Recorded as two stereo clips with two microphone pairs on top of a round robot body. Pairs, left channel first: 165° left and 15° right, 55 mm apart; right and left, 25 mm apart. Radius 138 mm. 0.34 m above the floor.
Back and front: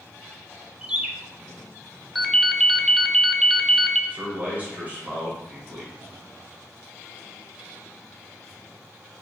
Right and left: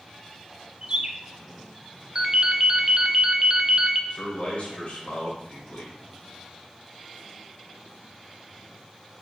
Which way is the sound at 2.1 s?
90° left.